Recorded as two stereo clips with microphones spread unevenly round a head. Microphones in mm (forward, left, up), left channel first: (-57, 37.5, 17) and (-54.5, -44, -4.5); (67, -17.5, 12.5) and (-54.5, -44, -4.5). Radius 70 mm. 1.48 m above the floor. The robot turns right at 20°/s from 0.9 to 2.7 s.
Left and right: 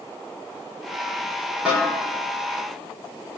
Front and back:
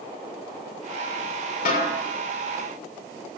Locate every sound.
1.6 s a snare drum: 5° right, 7 m; by 1.9 s straight ahead, 7 m